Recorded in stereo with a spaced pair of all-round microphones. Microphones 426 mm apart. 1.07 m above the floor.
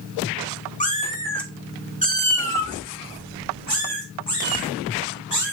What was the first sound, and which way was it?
A cat meowing, 20° left (ahead or behind).